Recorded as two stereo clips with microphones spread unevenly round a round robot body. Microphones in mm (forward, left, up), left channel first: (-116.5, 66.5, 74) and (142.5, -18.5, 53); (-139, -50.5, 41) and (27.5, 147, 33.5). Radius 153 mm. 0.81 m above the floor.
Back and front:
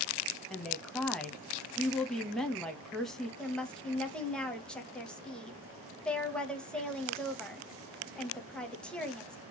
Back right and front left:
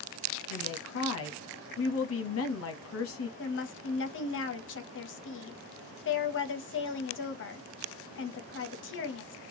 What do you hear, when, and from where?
0.5 s a woman speaking: 105° right, 1.0 m
3.4 s a woman speaking: 110° right, 0.9 m